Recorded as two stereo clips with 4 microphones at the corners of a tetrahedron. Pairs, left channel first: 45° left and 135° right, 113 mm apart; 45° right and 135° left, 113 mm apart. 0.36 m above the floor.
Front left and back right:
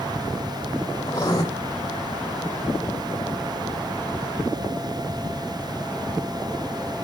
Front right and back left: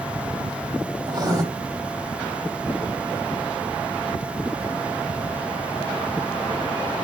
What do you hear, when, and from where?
1.1 s writing: 95° left, 1.1 m